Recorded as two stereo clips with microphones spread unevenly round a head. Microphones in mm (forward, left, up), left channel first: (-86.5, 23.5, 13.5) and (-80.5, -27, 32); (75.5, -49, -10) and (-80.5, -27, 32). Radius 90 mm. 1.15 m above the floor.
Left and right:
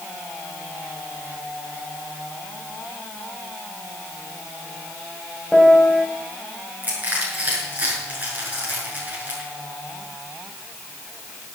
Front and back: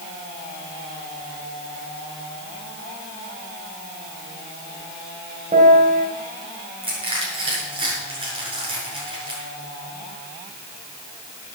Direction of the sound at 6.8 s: 135° right.